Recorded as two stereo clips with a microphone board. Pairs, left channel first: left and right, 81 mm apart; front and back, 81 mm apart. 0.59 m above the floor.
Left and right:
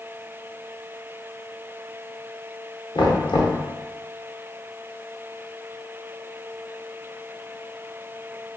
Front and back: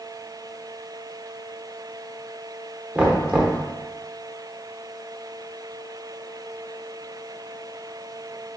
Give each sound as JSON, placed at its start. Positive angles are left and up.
{"t": 3.0, "sound": "knocking", "azimuth_deg": 105, "distance_m": 0.7}